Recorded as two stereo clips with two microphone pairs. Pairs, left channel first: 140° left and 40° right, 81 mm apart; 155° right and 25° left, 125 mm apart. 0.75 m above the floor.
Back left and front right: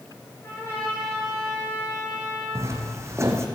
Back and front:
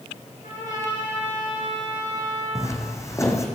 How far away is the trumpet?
About 7.5 m.